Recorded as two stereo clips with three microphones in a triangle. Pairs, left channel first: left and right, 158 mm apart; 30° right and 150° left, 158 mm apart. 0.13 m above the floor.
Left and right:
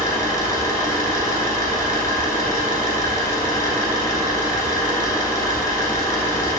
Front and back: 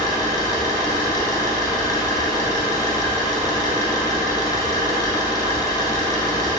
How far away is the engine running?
About 1.0 m.